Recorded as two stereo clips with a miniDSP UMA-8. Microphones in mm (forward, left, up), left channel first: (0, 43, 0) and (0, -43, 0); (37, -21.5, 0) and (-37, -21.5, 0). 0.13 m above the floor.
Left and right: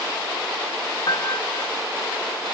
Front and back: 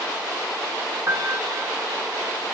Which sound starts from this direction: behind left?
A piano, at 1.1 s.